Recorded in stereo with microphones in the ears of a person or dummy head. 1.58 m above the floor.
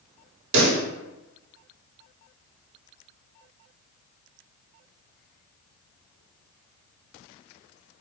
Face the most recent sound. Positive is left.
turn(degrees=-85)